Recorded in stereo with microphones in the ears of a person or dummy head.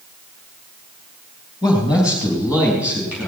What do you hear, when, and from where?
1.6 s a man speaking: 10° right (ahead or behind), 3 m